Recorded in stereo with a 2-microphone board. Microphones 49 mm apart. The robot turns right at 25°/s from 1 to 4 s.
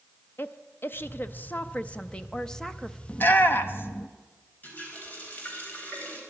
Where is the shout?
35° left (ahead or behind), 0.9 m; by 4.1 s 45° left (ahead or behind), 0.9 m.